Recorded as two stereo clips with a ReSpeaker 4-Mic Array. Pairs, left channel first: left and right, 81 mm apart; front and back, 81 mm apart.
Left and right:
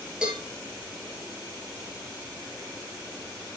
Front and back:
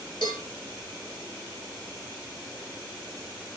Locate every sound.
0.2 s a cowbell: 10° right, 3 m